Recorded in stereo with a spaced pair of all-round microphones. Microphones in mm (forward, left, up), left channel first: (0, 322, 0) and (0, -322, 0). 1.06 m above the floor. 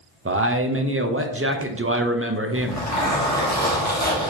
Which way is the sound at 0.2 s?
20° right (ahead or behind).